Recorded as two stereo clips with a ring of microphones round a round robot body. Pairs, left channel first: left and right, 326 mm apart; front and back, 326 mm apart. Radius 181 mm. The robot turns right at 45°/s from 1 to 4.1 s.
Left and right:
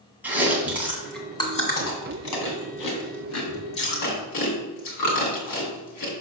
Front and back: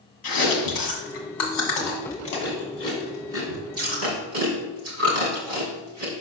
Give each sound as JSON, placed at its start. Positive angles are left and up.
{"t": 0.2, "sound": "chewing", "azimuth_deg": -5, "distance_m": 2.0}